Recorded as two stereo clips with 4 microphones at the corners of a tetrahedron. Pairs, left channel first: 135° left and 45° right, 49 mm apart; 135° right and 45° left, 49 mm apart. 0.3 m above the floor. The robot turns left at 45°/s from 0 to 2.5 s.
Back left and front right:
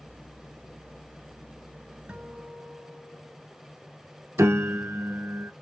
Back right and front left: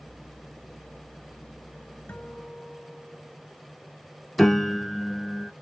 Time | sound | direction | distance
2.1 | a guitar | 95° right | 1.6 m
4.4 | a piano | 50° right | 0.6 m